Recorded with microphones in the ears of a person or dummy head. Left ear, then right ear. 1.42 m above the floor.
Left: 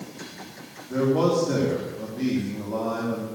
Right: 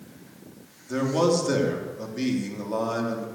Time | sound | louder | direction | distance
0.9 | a man speaking | left 1 dB | 70° right (ahead or behind) | 3.5 m